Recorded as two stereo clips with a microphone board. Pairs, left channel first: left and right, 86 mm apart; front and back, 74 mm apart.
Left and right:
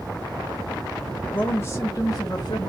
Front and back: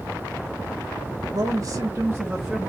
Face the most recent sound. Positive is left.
turn(degrees=85)